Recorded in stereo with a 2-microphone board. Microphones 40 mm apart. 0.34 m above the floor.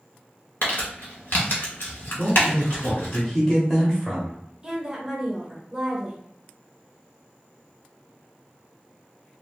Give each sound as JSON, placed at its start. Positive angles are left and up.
{"t": 0.6, "sound": "crumpling", "side_deg": 60, "distance_m": 1.3}
{"t": 2.2, "sound": "a man speaking", "side_deg": 10, "distance_m": 0.8}
{"t": 4.6, "sound": "a woman speaking", "side_deg": -15, "distance_m": 0.9}